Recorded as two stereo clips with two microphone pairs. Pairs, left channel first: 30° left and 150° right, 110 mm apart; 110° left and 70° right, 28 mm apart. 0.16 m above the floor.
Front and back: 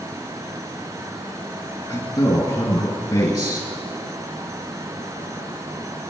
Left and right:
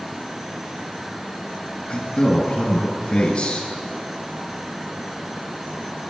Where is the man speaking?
75° left, 2 m.